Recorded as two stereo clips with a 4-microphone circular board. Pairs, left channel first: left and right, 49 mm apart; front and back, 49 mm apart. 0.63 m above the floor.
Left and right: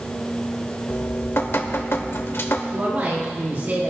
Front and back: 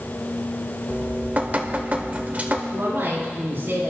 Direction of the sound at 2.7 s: 135° right.